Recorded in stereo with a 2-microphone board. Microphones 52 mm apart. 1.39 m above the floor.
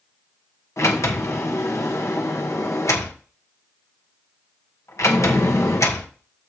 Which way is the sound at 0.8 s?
75° left (ahead or behind).